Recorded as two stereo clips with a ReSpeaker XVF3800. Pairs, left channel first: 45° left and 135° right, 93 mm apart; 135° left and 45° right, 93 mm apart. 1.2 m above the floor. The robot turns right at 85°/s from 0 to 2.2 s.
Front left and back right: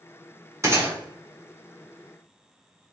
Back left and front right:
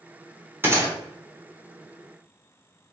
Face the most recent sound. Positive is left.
turn(degrees=35)